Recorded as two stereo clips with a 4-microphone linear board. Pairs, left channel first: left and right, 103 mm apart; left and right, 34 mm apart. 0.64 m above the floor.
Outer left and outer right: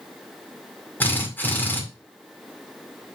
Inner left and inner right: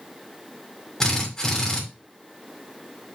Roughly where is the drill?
Centre.